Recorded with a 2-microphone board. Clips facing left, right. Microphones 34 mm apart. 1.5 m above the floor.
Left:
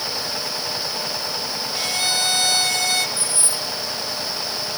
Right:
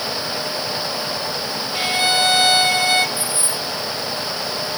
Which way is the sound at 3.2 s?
20° right (ahead or behind).